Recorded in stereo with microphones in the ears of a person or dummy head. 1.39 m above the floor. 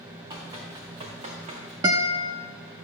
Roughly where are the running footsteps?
Right.